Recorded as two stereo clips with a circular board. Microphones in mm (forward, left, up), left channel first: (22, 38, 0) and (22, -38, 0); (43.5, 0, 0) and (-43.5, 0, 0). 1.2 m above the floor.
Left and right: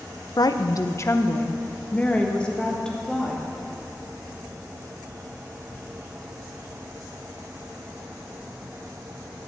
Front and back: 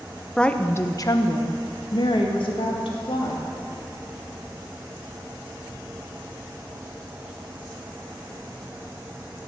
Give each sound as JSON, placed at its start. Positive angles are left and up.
{"t": 0.4, "sound": "a woman speaking", "azimuth_deg": 80, "distance_m": 0.8}